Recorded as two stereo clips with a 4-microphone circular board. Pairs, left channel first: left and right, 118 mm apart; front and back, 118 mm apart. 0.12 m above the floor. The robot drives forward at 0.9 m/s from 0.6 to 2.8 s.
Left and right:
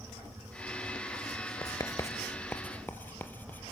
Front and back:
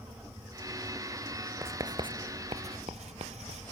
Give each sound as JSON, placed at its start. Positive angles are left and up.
{"t": 1.6, "sound": "writing", "azimuth_deg": 120, "distance_m": 0.7}